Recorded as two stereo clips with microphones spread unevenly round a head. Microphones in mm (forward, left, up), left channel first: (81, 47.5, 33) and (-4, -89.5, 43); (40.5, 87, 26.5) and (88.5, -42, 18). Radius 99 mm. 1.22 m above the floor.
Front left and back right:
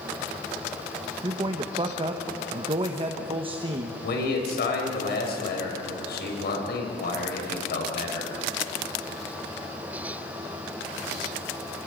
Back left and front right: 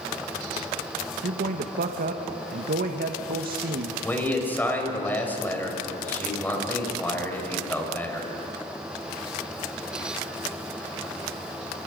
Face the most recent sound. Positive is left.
turn(degrees=35)